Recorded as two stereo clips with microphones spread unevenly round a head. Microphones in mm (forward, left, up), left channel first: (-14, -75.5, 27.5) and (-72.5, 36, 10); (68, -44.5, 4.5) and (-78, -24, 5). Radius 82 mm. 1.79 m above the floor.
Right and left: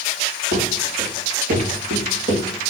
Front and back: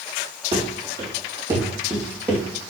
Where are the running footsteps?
120° left, 3 m; by 2.4 s 95° left, 3.5 m.